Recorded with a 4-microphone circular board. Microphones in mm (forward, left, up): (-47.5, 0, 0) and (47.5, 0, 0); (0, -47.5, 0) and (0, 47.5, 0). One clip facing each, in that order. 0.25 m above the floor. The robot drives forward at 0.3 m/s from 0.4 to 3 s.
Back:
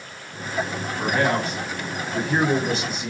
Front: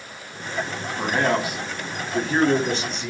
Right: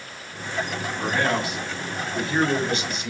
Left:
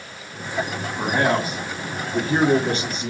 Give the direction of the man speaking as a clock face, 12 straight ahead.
10 o'clock.